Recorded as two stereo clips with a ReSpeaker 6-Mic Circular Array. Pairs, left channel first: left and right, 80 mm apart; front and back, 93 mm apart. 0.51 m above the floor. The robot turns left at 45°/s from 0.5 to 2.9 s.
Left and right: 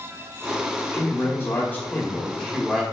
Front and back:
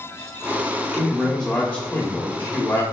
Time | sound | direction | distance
0.9 | a man speaking | 95° left | 0.7 m